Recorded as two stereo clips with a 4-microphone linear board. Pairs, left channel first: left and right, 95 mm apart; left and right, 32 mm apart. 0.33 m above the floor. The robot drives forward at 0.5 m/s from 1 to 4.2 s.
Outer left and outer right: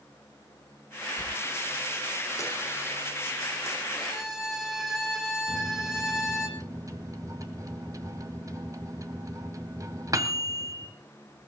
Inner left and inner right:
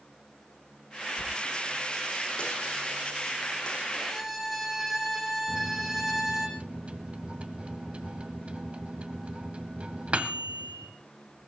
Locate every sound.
1.2 s a dropped coin: 35° left (ahead or behind), 7.5 m; by 3.8 s 30° left (ahead or behind), 8.5 m
4.0 s a violin: 5° right (ahead or behind), 3.5 m
5.5 s a microwave: 35° right (ahead or behind), 1.5 m